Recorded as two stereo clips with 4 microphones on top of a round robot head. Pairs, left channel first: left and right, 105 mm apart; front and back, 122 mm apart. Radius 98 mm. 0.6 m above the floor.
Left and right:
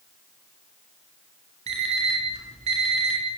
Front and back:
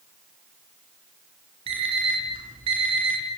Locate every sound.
1.7 s an alarm clock: 125° right, 5 m